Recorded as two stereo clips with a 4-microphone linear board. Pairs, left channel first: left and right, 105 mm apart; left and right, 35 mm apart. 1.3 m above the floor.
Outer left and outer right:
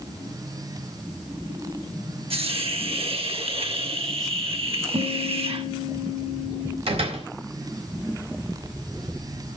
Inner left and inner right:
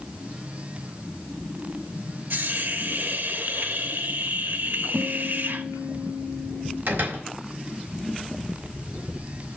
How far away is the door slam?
About 5.5 m.